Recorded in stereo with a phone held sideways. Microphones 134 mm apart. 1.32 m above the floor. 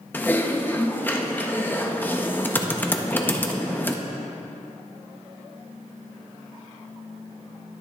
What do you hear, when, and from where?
0.1 s typing on a keyboard: 15° left (ahead or behind), 0.6 m